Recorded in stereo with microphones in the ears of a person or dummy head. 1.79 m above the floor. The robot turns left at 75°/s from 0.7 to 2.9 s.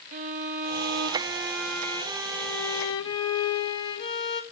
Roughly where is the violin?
Ahead right.